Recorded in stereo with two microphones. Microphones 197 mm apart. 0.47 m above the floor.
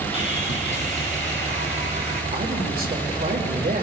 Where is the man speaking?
50° right (ahead or behind), 2.0 m.